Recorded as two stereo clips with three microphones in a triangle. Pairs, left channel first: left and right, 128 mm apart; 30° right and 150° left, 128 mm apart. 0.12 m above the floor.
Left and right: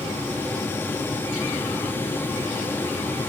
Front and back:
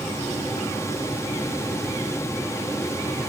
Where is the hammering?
I don't hear hammering.